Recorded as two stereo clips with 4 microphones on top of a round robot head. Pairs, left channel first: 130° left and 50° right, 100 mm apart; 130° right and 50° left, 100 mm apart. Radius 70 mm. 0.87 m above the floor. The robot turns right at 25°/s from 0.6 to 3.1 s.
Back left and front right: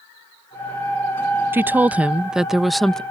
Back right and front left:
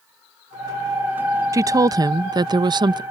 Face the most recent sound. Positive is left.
turn(degrees=50)